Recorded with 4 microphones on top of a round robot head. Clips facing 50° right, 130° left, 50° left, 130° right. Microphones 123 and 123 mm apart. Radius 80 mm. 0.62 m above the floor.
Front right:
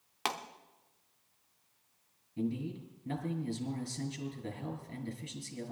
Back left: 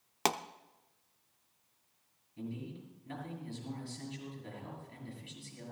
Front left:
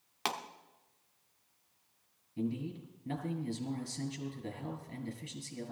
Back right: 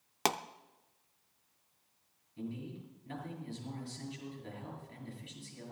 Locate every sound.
0.2 s a pop: straight behind, 0.7 m
2.4 s a man speaking: straight ahead, 5.5 m